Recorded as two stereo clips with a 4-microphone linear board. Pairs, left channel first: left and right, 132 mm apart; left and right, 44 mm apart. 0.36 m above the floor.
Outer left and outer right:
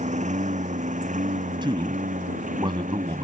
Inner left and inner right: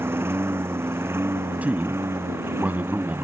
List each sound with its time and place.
0.0 s a lawn mower: 70° right (ahead or behind); by 3.2 s 85° right
1.6 s a man speaking: 40° right (ahead or behind)